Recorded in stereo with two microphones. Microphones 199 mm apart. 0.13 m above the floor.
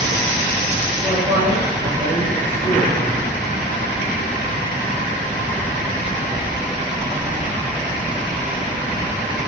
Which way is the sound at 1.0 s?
15° left (ahead or behind).